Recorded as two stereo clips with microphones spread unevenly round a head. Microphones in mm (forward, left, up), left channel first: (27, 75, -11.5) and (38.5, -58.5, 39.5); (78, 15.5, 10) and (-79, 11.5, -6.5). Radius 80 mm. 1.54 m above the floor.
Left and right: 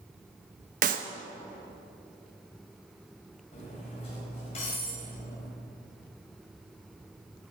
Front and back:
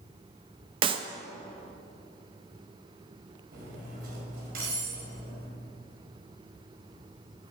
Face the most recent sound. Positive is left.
turn(degrees=155)